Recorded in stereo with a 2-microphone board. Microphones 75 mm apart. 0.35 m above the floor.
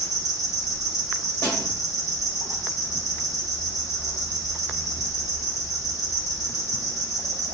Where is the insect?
60° right (ahead or behind), 0.8 m.